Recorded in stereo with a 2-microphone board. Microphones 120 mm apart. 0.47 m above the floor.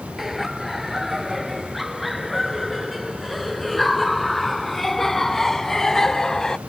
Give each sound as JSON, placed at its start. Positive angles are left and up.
{"t": 0.2, "sound": "laughter", "side_deg": 0}